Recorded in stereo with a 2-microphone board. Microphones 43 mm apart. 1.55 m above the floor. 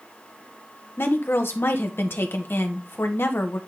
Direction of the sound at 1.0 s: 65° left (ahead or behind).